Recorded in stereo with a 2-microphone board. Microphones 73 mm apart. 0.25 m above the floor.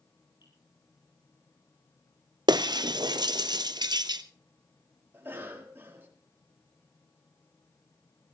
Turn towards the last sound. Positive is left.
turn(degrees=-30)  # may be behind; listen again after turning